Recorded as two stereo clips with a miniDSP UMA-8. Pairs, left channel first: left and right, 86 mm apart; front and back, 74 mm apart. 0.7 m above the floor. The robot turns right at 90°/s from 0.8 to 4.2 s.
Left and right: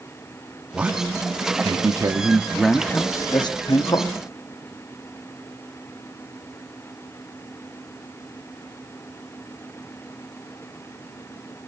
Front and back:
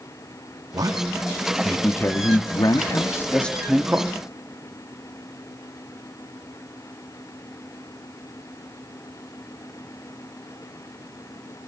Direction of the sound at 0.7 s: 165° right.